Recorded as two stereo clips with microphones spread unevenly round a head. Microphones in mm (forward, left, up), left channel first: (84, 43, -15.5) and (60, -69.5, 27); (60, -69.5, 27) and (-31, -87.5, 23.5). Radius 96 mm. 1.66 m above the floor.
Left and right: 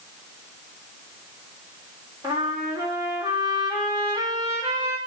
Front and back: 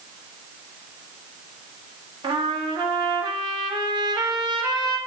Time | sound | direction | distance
2.2 | a trumpet | 145° right | 1.6 m